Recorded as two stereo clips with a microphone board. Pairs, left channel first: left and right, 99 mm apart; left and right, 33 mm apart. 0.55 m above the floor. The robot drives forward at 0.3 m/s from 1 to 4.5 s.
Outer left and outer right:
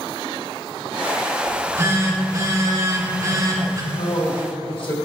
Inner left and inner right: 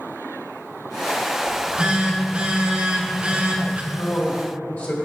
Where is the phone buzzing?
30° right (ahead or behind), 1.1 m; by 3.8 s 35° right (ahead or behind), 0.9 m.